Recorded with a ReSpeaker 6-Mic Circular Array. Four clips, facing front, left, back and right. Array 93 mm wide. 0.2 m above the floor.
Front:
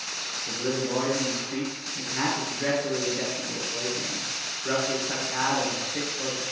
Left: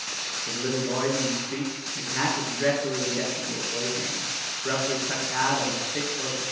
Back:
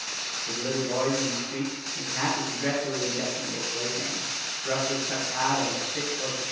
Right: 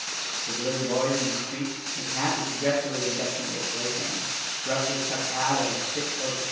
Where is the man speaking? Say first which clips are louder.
Even, front 1 dB; 80° left, 3 m.